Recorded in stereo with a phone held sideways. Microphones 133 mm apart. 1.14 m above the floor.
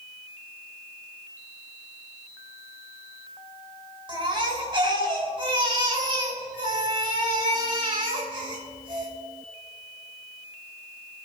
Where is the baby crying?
40° right (ahead or behind), 4 m.